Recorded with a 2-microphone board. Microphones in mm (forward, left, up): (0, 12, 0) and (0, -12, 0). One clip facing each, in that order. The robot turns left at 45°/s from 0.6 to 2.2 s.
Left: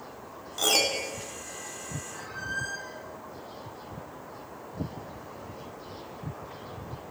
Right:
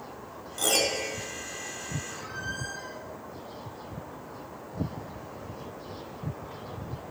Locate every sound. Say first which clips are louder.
0.6 s a piano: left 1 dB; 20° left (ahead or behind), 1.1 m; by 1.1 s 30° left (ahead or behind), 1.1 m
2.1 s a squeak: left 1 dB; 80° right, 4.5 m; by 3.0 s 75° right (ahead or behind), 4.5 m